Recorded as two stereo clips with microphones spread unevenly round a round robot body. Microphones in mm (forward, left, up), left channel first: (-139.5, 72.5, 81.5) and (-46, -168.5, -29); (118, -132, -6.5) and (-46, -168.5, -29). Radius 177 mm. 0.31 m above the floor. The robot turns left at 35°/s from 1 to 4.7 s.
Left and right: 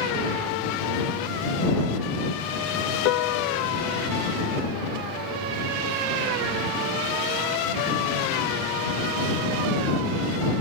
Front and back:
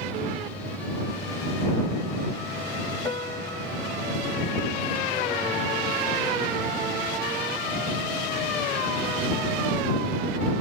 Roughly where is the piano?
Left.